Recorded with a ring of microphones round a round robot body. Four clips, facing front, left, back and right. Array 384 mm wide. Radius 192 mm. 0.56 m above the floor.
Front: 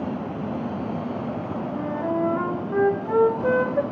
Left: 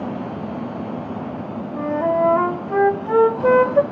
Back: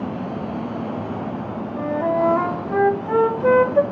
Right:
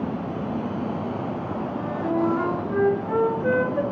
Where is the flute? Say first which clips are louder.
Left 7 dB, back 6 dB; 125° left, 0.8 m.